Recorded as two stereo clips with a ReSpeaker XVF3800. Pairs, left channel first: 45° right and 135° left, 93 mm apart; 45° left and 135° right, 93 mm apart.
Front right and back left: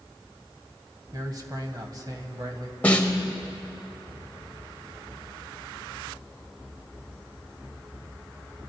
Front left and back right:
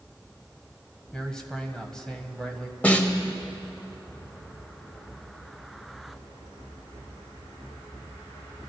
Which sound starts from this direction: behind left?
A man speaking, at 1.1 s.